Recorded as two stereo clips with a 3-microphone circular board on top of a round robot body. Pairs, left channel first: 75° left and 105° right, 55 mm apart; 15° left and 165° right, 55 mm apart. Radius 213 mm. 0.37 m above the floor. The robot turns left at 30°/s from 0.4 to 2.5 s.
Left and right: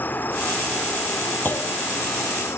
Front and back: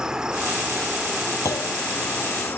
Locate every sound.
0.0 s an insect: 120° left; by 2.6 s 60° left
1.4 s a clunk: 25° left; by 1.7 s 15° left